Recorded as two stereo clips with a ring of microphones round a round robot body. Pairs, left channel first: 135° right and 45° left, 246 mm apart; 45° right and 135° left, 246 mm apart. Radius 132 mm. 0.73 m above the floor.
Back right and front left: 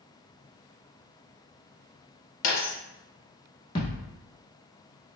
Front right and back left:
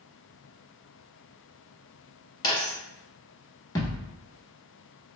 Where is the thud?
105° right, 0.7 m.